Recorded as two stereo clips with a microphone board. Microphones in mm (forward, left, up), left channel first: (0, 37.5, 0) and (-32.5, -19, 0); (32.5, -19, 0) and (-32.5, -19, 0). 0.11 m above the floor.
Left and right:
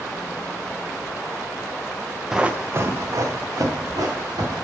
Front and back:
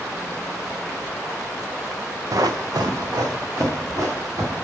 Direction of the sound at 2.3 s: 155° left.